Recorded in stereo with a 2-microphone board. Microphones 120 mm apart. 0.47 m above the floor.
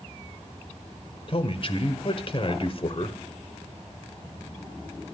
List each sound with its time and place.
1.3 s a man speaking: 50° left (ahead or behind), 1.3 m